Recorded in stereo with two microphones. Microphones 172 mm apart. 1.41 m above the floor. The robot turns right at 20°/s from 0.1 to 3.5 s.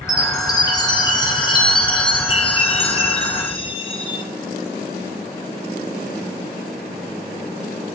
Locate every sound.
0.1 s a chime: 35° left, 0.8 m; by 4.2 s 105° left, 0.8 m